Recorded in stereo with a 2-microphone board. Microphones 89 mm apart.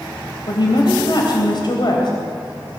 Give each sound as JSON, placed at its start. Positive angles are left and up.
{"t": 0.5, "sound": "a woman speaking", "side_deg": 55, "distance_m": 3.5}